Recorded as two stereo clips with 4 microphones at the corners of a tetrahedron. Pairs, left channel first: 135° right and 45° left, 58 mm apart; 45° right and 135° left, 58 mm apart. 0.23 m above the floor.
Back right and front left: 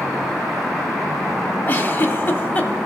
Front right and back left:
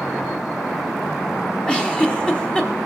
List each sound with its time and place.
1.7 s a giggle: 105° right, 1.0 m